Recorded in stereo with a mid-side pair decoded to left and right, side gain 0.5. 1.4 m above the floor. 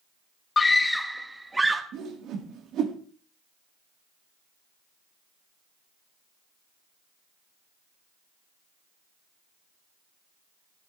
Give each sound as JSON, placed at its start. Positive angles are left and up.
{"t": 0.6, "sound": "a scream", "azimuth_deg": 30, "distance_m": 0.9}
{"t": 1.9, "sound": "a whoosh", "azimuth_deg": -65, "distance_m": 2.0}